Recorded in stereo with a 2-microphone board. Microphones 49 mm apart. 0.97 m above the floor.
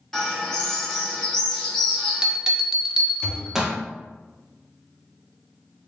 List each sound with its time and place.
0.1 s a bird: 10° left (ahead or behind), 1.0 m
1.8 s a bell: 10° right (ahead or behind), 0.6 m
3.2 s a thud: 20° left (ahead or behind), 0.5 m